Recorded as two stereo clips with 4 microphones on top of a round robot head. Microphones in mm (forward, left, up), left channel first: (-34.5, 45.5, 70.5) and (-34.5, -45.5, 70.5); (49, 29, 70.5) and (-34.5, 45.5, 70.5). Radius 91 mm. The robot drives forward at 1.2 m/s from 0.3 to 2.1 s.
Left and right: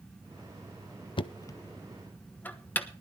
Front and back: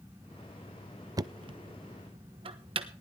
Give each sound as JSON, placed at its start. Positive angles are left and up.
{"t": 1.2, "sound": "knocking", "azimuth_deg": 120, "distance_m": 0.6}